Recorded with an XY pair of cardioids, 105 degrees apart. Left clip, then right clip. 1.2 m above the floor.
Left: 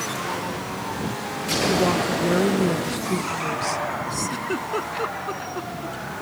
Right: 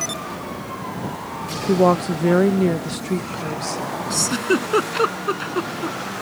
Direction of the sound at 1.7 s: 55° right.